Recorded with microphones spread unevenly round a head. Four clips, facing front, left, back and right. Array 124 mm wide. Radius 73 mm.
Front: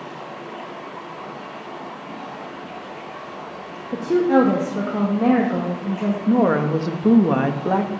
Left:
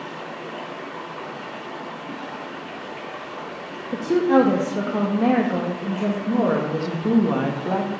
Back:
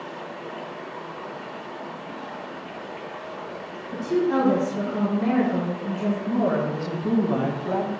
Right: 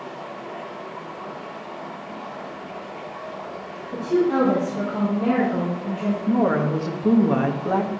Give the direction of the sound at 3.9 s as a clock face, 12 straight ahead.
11 o'clock.